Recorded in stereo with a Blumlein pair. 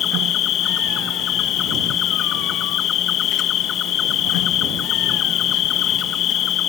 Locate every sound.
0.0 s an insect: 30° left